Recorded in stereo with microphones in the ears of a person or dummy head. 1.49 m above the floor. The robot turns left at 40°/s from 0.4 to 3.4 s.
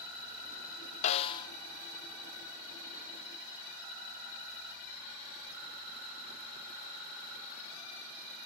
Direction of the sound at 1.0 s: 35° left (ahead or behind).